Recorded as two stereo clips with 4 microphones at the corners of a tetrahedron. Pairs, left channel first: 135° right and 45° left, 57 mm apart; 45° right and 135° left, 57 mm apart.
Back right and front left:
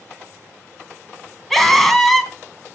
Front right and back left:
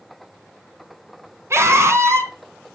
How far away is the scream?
About 2.5 m.